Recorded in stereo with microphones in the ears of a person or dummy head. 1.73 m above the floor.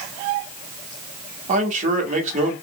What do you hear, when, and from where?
1.5 s a man speaking: 40° right (ahead or behind), 0.8 m